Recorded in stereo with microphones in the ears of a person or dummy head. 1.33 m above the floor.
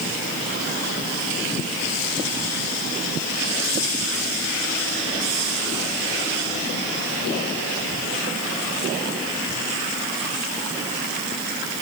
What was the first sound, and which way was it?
Only background noise.